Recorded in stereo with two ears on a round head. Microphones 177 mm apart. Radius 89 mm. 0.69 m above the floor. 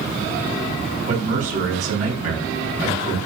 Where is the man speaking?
40° right (ahead or behind), 6 m.